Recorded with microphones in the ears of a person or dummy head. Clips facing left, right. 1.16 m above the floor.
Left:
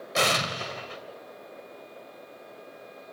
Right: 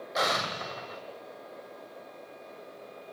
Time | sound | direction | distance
0.1 | an explosion | 40° left (ahead or behind) | 2.0 m